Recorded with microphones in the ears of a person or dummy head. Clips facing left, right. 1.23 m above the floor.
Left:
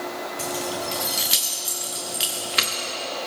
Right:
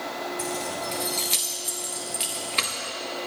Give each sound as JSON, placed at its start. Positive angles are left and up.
{"t": 0.4, "sound": "keys jangling", "side_deg": 15, "distance_m": 0.9}